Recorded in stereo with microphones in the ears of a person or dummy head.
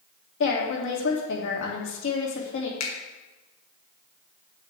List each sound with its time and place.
0.4 s a woman speaking: 70° left (ahead or behind), 2.5 m
2.8 s a finger snap: 85° left, 2 m